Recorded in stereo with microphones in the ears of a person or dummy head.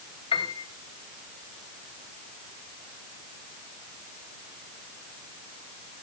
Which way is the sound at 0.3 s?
30° left (ahead or behind).